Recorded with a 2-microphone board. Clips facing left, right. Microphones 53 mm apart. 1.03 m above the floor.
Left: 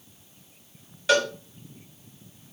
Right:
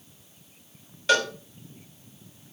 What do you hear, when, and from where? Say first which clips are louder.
1.1 s a cowbell: left 1 dB; 5° left (ahead or behind), 2.5 m